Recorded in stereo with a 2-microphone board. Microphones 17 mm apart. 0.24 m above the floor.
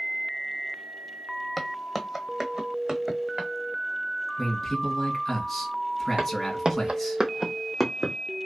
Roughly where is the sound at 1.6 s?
Centre.